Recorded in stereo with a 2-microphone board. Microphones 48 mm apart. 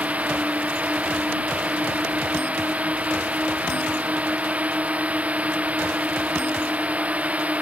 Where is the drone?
30° right (ahead or behind).